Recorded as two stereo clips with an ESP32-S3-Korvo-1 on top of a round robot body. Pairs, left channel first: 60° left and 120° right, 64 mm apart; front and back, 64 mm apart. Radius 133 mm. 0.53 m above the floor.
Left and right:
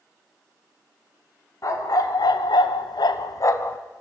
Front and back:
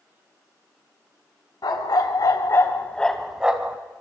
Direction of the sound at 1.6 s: 20° left.